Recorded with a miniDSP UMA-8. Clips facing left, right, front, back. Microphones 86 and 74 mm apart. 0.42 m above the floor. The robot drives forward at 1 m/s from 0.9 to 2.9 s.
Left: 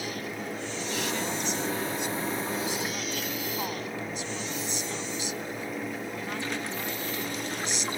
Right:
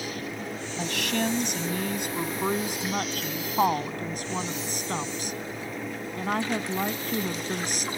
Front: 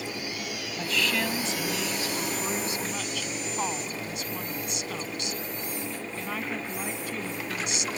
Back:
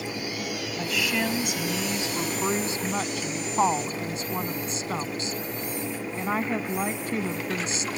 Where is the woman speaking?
95° right; by 7.9 s 125° right.